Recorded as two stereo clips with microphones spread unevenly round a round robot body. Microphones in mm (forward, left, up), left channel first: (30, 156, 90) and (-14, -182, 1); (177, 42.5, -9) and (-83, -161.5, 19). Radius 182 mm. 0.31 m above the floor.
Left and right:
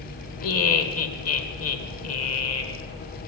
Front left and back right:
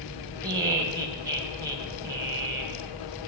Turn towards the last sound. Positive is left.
turn(degrees=135)